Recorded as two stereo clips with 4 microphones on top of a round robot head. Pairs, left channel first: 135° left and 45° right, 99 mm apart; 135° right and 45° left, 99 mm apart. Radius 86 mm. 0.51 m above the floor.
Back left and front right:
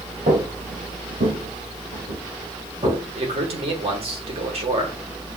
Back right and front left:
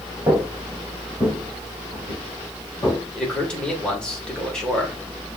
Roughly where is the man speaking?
Ahead right.